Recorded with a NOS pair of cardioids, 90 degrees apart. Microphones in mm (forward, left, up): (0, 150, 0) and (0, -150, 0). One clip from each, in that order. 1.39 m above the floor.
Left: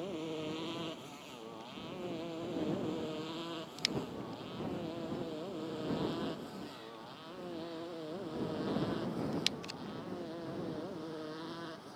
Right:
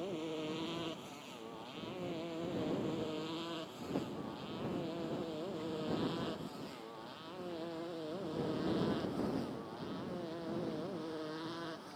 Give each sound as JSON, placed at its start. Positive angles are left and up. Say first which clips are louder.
{"t": 0.0, "sound": "a motorcycle", "louder": "left 1 dB", "azimuth_deg": 5}